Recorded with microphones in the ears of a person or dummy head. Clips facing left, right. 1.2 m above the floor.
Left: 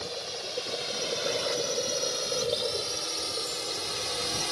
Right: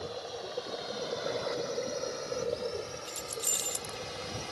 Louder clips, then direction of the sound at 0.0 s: Left 1 dB; 30° left (ahead or behind).